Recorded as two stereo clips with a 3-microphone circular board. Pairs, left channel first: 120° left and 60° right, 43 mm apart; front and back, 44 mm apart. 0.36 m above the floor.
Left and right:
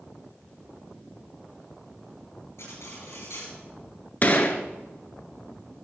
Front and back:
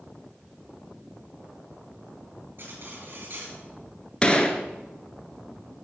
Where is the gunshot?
65° left, 1.1 m.